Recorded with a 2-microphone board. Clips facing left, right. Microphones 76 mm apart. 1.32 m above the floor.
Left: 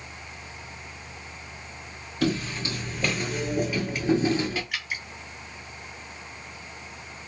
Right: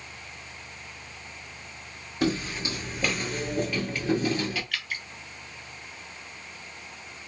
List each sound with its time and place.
2.2 s footsteps: 20° right (ahead or behind), 1.5 m; by 4.6 s 30° left (ahead or behind), 1.4 m
4.7 s dripping: 15° left (ahead or behind), 0.6 m